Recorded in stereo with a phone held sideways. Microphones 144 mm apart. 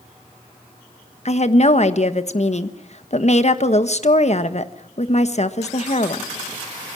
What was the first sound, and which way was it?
A woman speaking, 50° left (ahead or behind).